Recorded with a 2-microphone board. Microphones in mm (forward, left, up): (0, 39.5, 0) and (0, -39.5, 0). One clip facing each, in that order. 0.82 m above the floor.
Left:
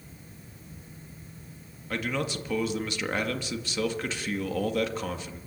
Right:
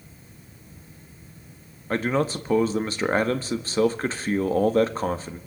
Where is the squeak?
No squeak in this recording.